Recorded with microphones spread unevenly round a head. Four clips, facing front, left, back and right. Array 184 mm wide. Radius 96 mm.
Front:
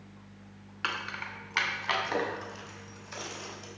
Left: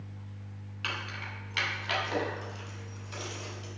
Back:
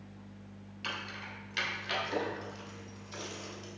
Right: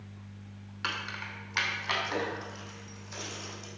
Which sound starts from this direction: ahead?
Keys jangling, at 0.8 s.